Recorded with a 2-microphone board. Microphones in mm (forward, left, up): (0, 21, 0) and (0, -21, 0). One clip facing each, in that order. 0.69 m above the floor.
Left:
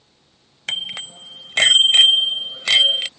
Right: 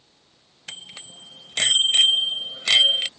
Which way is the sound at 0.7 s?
65° left (ahead or behind).